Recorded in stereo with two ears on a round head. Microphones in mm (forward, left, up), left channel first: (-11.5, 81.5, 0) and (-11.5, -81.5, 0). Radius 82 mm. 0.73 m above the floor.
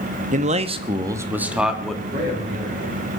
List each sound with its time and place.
0.3 s a man speaking: 45° right (ahead or behind), 1.1 m; by 2.0 s centre (ahead or behind), 1.6 m
2.1 s a man speaking: 35° right (ahead or behind), 10 m